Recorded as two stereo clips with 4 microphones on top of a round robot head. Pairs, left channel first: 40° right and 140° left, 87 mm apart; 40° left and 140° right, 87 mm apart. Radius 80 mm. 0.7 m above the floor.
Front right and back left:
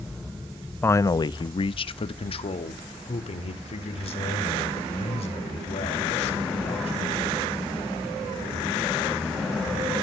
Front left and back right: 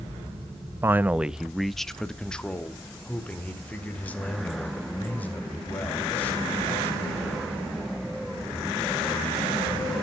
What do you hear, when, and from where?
0.8 s a man speaking: 95° right, 0.5 m; by 7.1 s 30° right, 4.5 m